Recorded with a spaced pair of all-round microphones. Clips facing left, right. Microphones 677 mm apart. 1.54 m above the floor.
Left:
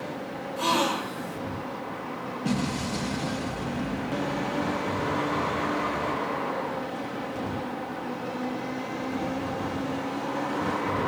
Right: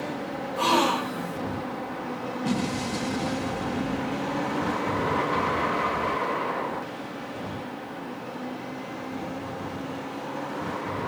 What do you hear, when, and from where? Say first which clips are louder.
0.6 s a gasp: right 3 dB; 75° right (ahead or behind), 1.8 m
2.5 s an explosion: even; 10° left (ahead or behind), 1.0 m